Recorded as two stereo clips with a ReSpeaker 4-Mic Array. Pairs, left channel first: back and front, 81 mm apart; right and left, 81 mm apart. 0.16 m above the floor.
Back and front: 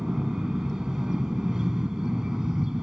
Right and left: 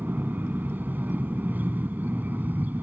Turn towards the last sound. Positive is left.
turn(degrees=70)